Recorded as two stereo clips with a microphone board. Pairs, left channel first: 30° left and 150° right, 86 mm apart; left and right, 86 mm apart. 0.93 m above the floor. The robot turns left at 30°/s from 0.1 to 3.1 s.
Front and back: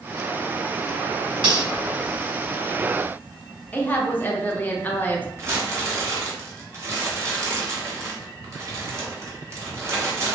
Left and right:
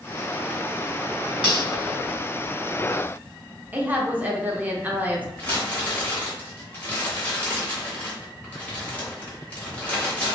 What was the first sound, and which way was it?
Cutlery clinking, 165° right.